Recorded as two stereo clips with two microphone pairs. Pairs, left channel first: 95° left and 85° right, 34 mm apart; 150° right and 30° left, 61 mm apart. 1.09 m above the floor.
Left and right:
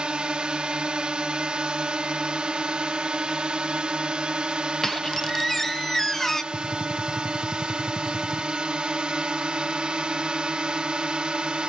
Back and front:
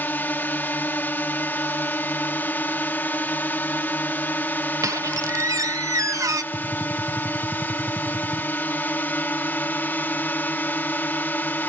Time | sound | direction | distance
0.0 | a drone | 120° right | ?
4.8 | a squeak | 15° left | ?
6.5 | a gunshot | 15° right | ?